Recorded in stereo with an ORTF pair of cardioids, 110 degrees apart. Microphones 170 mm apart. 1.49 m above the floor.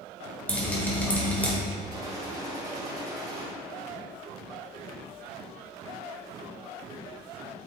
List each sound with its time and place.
0.5 s dripping: 10° left, 1.8 m
1.9 s a gunshot: 20° right, 2.5 m